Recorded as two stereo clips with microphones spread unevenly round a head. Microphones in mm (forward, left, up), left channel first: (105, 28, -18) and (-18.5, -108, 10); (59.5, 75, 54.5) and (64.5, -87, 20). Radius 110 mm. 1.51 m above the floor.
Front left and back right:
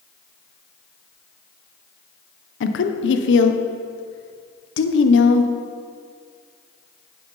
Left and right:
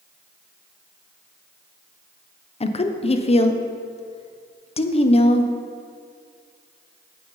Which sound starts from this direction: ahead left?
A woman speaking, at 2.6 s.